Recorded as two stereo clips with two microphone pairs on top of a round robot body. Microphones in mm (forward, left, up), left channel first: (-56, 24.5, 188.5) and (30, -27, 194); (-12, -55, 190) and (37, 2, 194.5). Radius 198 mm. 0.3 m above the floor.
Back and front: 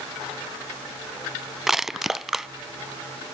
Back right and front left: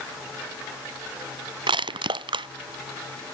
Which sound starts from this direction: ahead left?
Crushing, at 1.7 s.